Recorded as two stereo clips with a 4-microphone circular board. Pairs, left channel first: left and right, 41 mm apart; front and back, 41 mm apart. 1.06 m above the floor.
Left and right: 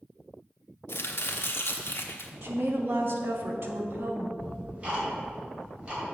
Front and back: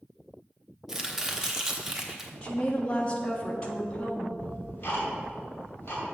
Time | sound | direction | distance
0.9 | chopping | 100° left | 1.0 m
2.4 | a woman speaking | 60° right | 1.4 m
4.4 | ticking | 30° right | 2.5 m